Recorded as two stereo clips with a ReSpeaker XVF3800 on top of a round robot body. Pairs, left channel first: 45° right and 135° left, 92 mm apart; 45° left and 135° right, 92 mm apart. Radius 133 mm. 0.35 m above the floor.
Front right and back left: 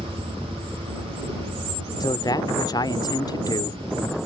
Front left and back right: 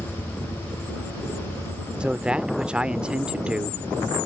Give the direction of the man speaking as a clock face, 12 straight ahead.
2 o'clock.